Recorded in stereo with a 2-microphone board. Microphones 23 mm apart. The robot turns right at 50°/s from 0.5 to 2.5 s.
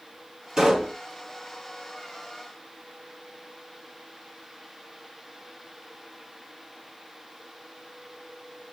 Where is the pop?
35° right (ahead or behind), 1.8 m; by 1.0 s 30° right (ahead or behind), 1.8 m.